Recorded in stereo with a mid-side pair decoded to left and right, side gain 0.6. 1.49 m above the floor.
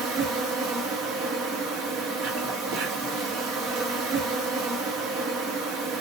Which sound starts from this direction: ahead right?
An insect, at 0.0 s.